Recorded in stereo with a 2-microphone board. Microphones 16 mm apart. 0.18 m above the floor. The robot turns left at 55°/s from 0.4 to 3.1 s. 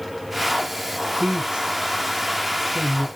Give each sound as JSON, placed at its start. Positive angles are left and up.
{"t": 1.2, "sound": "a man speaking", "side_deg": -60, "distance_m": 2.0}